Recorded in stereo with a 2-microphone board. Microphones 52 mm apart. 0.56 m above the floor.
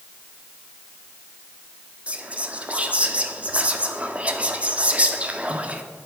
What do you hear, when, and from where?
2.1 s whispering: 30° right (ahead or behind), 0.6 m